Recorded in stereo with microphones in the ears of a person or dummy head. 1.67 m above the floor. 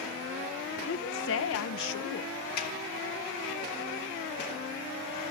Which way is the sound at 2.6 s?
60° left (ahead or behind).